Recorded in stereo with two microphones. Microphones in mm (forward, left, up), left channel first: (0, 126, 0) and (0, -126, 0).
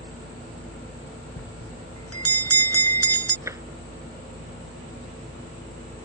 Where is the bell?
70° left (ahead or behind).